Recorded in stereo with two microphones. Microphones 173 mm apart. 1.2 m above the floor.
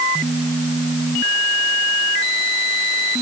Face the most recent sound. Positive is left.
No sound to turn to.